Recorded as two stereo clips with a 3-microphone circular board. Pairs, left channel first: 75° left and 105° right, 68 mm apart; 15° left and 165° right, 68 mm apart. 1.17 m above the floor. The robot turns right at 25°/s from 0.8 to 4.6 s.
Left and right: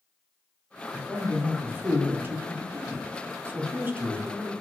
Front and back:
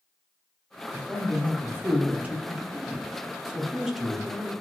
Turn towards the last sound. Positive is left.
turn(degrees=-70)